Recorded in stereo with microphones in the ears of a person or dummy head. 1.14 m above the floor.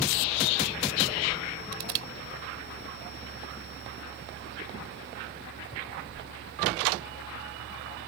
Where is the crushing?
70° right (ahead or behind).